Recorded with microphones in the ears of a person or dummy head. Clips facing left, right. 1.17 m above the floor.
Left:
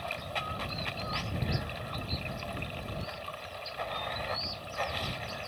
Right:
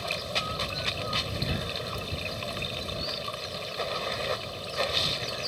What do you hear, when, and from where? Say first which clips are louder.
0.0 s running water: right 4 dB; 55° right (ahead or behind)